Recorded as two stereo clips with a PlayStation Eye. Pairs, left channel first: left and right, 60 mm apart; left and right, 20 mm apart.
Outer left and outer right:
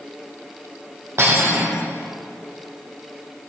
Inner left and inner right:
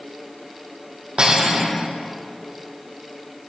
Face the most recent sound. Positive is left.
turn(degrees=-45)  # may be behind; listen again after turning